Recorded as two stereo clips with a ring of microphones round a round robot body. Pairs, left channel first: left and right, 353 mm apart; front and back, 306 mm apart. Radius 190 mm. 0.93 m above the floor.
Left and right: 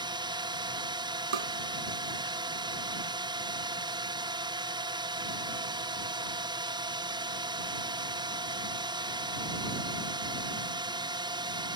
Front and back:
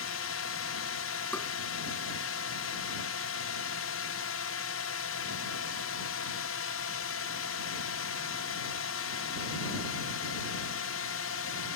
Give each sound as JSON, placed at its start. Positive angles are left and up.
{"t": 0.0, "sound": "a drone", "azimuth_deg": -15}
{"t": 1.3, "sound": "tapping", "azimuth_deg": -85}